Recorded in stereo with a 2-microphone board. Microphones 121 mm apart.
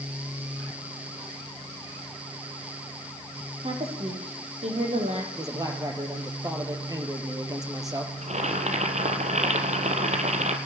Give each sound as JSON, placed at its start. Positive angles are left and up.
{"t": 3.6, "sound": "a woman speaking", "side_deg": -60, "distance_m": 7.0}
{"t": 5.3, "sound": "a man speaking", "side_deg": -30, "distance_m": 5.0}
{"t": 8.2, "sound": "boiling", "side_deg": -70, "distance_m": 3.0}